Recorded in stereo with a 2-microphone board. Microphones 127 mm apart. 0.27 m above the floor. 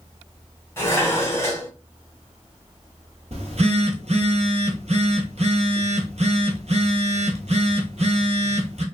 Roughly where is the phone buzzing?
Right.